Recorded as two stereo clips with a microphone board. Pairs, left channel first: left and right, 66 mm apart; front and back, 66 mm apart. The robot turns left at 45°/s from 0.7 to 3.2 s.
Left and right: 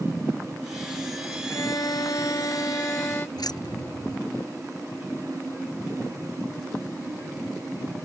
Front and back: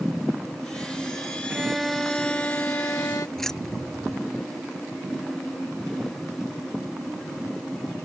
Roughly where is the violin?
Left.